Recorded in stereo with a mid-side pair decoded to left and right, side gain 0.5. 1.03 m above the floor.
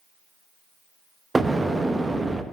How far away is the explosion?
About 0.9 m.